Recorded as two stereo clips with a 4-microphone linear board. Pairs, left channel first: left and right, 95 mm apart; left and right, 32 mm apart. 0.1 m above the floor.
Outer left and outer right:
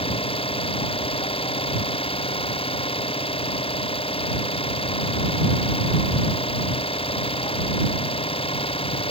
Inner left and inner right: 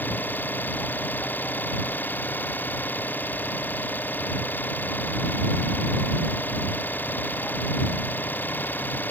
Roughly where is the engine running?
Left.